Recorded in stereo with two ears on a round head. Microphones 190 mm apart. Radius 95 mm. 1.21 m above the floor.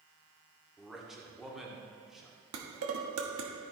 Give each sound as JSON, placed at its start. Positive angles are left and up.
{"t": 0.8, "sound": "a man speaking", "side_deg": 0, "distance_m": 1.4}
{"t": 2.5, "sound": "dishes clattering", "side_deg": -75, "distance_m": 1.3}